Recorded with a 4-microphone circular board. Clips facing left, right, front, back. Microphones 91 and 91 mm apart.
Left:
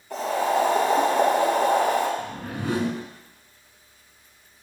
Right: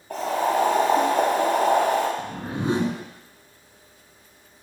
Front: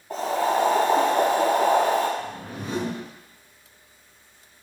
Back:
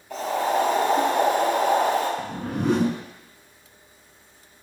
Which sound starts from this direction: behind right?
A whoosh, at 2.2 s.